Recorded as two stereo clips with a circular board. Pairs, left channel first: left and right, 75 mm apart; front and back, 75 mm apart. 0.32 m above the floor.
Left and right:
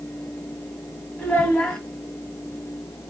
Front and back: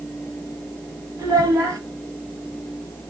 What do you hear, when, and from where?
1.2 s a child speaking: 165° left, 1.2 m